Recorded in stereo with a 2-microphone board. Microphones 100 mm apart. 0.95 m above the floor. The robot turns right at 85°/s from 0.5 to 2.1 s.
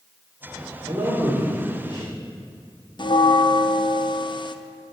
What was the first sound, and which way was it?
A man speaking, 35° right.